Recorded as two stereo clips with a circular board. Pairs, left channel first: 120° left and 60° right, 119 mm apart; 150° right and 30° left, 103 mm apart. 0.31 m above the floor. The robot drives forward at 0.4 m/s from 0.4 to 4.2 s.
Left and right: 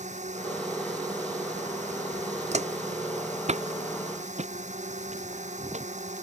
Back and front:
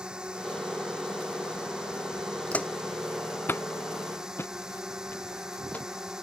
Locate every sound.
0.0 s a drone: 50° right; by 6.2 s 55° right
2.5 s footsteps: 70° right; by 5.9 s 75° right